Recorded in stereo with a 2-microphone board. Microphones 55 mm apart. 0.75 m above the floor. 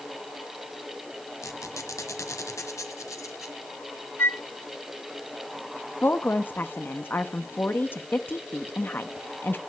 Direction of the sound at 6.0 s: 40° left (ahead or behind).